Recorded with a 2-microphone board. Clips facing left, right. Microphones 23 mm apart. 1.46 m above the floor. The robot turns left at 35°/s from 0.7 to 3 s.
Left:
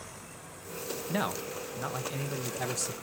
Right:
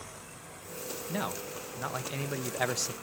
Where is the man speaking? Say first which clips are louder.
Left 3 dB; 20° left, 0.7 m; by 2.9 s 45° right, 0.7 m.